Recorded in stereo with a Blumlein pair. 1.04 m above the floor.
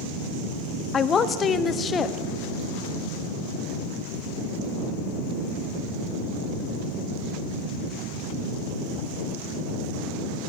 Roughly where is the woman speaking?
Ahead left.